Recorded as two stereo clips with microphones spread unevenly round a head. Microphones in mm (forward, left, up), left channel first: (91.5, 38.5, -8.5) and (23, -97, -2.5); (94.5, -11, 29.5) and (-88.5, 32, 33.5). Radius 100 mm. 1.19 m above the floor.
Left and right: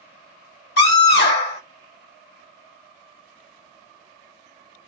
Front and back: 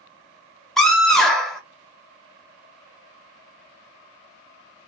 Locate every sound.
0.8 s a scream: 75° left, 1.4 m